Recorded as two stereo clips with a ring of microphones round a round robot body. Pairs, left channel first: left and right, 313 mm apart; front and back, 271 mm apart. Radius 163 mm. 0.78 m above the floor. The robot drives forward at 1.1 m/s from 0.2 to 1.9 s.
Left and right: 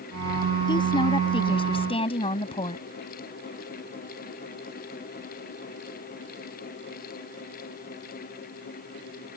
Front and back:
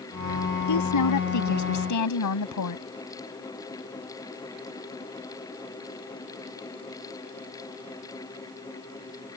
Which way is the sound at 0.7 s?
15° left.